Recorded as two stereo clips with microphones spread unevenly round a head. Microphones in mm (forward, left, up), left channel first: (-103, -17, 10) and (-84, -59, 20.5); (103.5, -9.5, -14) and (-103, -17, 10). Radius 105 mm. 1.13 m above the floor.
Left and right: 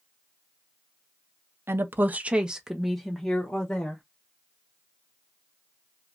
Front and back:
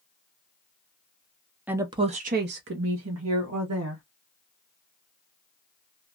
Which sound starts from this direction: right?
A woman speaking, at 1.7 s.